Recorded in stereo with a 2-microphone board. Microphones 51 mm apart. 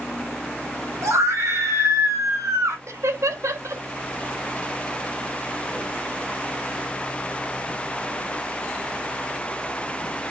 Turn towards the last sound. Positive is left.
turn(degrees=-75)  # may be behind; listen again after turning